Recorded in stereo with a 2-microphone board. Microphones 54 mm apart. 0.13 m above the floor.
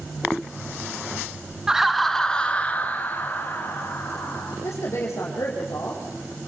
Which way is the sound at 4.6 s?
65° left (ahead or behind).